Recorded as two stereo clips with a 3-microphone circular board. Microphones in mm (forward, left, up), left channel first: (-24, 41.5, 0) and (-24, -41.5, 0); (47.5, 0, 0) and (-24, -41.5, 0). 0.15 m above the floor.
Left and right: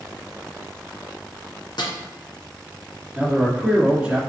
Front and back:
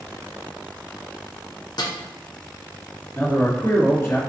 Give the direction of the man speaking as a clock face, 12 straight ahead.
1 o'clock.